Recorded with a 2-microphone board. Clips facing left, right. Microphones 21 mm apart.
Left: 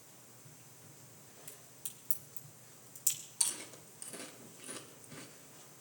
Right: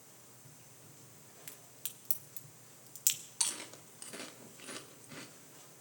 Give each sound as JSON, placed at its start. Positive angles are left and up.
{"t": 1.5, "sound": "a crack", "side_deg": -60, "distance_m": 1.4}
{"t": 3.4, "sound": "chewing", "side_deg": -30, "distance_m": 1.4}